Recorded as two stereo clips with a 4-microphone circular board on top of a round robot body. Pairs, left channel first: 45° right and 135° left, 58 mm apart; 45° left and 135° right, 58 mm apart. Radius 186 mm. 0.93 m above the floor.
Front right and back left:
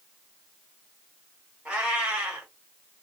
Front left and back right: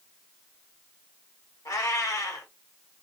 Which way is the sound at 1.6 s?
60° left.